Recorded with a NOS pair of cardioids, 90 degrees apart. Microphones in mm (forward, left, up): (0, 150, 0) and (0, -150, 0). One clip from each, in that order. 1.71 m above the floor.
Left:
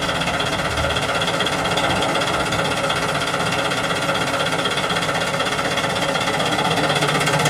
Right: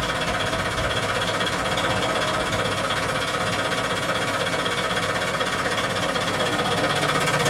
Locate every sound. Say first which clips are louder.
0.0 s an engine running: left 3 dB; 35° left, 1.1 m